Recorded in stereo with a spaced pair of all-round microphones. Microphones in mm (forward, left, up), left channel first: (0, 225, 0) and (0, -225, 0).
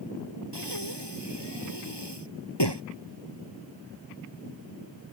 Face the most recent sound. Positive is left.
turn(degrees=65)  # may be behind; listen again after turning